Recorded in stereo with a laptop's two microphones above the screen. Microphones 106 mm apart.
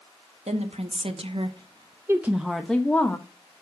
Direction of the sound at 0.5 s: 80° right.